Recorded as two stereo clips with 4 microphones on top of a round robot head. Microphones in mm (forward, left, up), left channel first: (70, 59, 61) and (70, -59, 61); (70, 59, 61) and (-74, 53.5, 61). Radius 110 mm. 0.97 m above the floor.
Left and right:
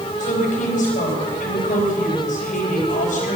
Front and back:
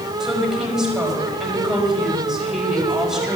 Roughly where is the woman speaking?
Left.